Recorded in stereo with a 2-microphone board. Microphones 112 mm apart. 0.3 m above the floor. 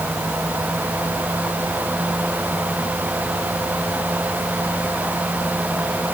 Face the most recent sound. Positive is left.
No sound to turn to.